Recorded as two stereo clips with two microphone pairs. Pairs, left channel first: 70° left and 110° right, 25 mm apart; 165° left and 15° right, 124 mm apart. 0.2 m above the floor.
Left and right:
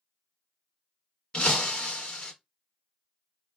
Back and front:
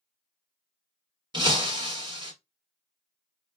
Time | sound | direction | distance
1.3 | breaking glass | 30° left | 1.1 m